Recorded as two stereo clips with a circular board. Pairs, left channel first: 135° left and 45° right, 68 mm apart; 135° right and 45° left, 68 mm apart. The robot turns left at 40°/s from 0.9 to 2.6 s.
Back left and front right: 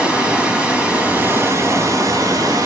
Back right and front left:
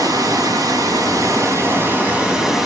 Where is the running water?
30° left, 1.5 m; by 2.7 s 40° right, 1.5 m.